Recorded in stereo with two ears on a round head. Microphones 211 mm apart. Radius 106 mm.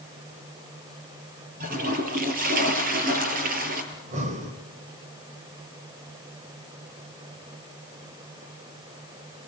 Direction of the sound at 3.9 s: 30° right (ahead or behind).